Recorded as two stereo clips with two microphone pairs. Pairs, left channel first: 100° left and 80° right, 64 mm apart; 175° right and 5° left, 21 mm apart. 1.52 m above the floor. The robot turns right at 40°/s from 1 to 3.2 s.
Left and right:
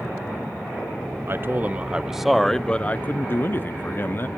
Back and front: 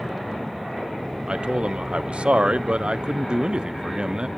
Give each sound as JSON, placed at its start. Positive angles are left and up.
{"t": 1.3, "sound": "a man speaking", "azimuth_deg": -35, "distance_m": 0.6}